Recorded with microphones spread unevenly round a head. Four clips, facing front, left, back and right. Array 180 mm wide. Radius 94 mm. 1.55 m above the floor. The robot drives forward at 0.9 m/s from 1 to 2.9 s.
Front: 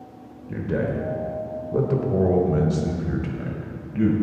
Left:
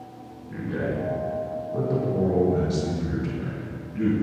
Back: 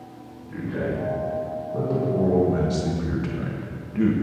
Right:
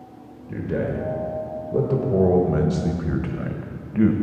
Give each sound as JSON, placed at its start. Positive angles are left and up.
{"t": 0.5, "sound": "a man speaking", "azimuth_deg": -35, "distance_m": 1.9}